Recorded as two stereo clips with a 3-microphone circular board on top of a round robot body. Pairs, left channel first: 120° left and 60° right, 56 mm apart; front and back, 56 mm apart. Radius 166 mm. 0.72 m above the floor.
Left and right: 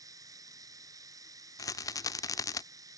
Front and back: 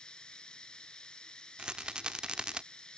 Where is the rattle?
105° left.